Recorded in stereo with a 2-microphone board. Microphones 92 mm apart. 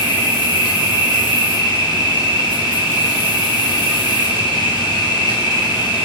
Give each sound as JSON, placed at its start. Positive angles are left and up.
{"t": 0.0, "sound": "an insect", "side_deg": 45, "distance_m": 4.5}